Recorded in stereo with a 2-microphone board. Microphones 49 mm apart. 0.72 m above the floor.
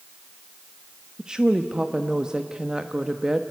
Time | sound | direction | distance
1.2 | a woman speaking | 15° right (ahead or behind) | 0.9 m